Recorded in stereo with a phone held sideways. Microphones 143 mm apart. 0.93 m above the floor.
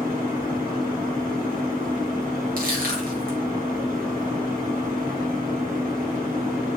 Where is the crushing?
75° right (ahead or behind), 0.9 m.